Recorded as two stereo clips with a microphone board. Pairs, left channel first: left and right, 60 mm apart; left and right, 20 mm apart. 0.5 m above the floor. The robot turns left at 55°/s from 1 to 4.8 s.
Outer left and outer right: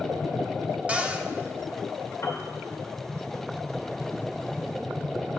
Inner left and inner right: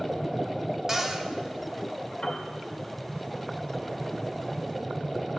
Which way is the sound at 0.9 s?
25° right (ahead or behind).